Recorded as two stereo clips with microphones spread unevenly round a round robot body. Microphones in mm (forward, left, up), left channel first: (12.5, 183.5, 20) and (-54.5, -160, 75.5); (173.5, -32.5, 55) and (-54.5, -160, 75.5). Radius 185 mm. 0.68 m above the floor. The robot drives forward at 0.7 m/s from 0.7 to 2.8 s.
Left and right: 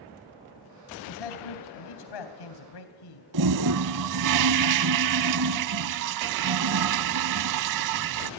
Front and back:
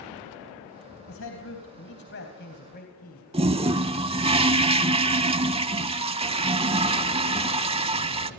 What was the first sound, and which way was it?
A man speaking, 75° left.